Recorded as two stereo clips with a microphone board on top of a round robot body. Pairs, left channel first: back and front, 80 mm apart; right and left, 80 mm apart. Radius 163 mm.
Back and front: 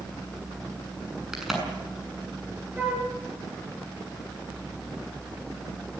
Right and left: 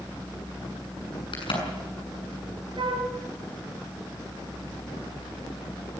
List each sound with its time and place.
1.3 s a crack: 85° right, 7 m
2.8 s a flute: 75° left, 4.5 m